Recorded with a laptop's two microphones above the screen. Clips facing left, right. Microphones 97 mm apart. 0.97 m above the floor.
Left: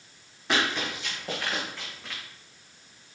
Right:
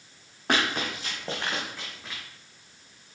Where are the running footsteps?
55° right (ahead or behind), 3 m; by 2.2 s centre (ahead or behind), 3 m.